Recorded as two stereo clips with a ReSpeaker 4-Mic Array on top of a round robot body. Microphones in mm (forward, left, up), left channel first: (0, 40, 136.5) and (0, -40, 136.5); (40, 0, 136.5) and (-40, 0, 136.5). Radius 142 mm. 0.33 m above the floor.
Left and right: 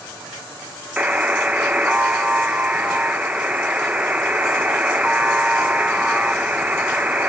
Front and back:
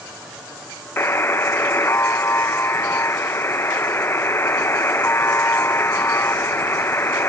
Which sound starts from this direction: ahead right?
A buzzer, at 1.0 s.